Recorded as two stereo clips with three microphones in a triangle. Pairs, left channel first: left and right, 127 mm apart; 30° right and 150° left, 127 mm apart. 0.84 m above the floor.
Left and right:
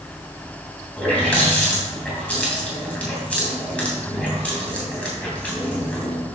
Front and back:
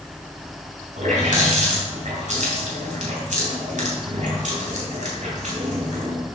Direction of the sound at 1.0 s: 170° left.